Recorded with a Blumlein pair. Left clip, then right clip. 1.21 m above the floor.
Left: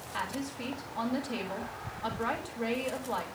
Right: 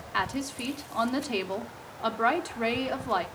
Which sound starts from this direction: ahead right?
A woman speaking, at 0.1 s.